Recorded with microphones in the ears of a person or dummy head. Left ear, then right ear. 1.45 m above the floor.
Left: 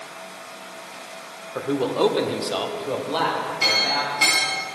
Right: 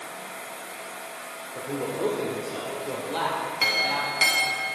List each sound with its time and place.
1.6 s a man speaking: 75° left (ahead or behind), 0.9 m; by 4.2 s 10° right (ahead or behind), 1.5 m
3.6 s a clink: 35° right (ahead or behind), 1.1 m